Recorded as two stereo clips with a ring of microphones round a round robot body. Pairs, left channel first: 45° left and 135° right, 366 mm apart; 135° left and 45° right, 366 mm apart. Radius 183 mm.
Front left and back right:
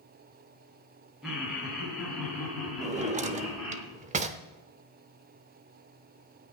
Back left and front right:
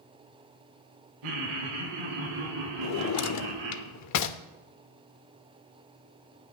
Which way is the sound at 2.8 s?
160° left.